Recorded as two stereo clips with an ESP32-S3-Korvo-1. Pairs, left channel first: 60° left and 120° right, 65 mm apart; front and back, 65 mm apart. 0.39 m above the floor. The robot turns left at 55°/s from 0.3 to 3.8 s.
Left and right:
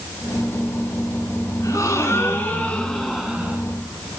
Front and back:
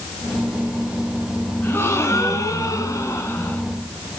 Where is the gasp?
45° left, 2 m; by 3.6 s 65° right, 2 m.